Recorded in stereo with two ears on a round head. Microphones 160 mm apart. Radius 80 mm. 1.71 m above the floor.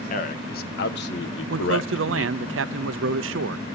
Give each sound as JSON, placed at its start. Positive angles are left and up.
{"t": 0.1, "sound": "a man speaking", "side_deg": 50, "distance_m": 1.9}
{"t": 1.5, "sound": "a man speaking", "side_deg": -80, "distance_m": 0.7}